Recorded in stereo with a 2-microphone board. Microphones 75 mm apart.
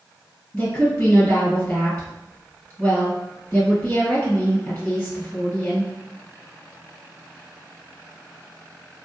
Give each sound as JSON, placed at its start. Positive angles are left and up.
{"t": 0.5, "sound": "a woman speaking", "side_deg": 30, "distance_m": 1.9}